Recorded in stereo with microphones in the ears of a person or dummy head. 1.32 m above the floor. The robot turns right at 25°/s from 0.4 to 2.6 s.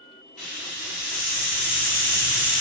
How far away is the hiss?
About 1.0 m.